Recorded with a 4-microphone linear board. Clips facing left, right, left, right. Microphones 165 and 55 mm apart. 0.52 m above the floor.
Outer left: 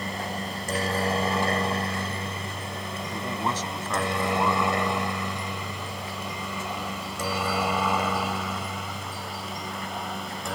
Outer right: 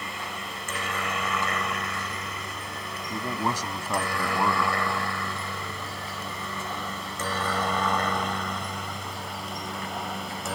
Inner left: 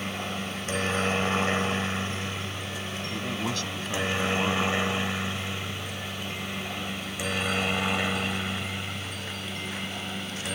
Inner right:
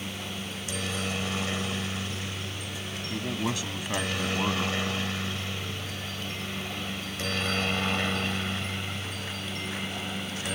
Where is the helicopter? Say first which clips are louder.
Outer left 5 dB, inner left 4 dB; 40° left (ahead or behind); by 10.6 s centre (ahead or behind).